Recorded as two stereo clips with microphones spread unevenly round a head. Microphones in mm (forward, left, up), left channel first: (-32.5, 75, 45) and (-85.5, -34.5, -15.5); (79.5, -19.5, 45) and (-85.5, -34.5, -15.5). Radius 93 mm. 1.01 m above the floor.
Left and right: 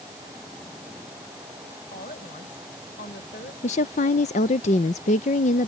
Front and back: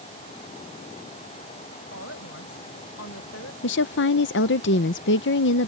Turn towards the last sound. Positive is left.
turn(degrees=10)